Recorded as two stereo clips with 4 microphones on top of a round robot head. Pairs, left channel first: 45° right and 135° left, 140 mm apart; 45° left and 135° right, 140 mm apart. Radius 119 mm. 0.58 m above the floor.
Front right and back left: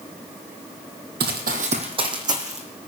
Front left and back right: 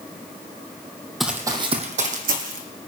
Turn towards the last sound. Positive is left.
turn(degrees=-155)